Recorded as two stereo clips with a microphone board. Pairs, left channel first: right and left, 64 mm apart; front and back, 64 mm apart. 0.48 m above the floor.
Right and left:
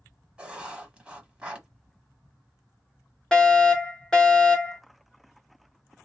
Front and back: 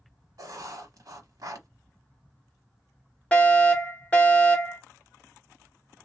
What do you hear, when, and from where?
0.4 s writing: 165° left, 1.0 m
3.3 s a fire alarm: 30° right, 1.8 m